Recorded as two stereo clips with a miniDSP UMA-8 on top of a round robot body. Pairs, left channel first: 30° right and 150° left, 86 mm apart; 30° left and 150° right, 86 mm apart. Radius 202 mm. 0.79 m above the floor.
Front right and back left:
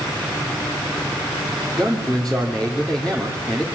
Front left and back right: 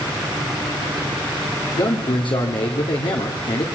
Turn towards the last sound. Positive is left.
turn(degrees=55)